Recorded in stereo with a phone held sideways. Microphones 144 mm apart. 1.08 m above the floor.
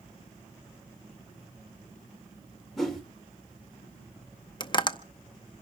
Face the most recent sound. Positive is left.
turn(degrees=30)  # may be behind; listen again after turning